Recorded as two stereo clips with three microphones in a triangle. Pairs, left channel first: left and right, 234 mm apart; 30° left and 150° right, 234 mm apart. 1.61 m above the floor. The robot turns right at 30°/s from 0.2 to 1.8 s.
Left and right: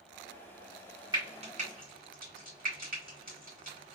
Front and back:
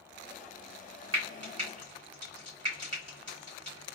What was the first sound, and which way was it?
Frying, 165° right.